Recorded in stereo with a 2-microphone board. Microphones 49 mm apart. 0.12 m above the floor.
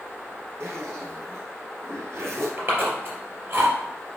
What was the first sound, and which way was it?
A zipper, 65° right (ahead or behind).